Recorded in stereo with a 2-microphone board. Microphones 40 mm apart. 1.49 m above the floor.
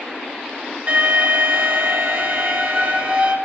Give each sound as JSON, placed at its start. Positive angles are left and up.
{"t": 0.9, "sound": "an alarm", "side_deg": -40, "distance_m": 2.5}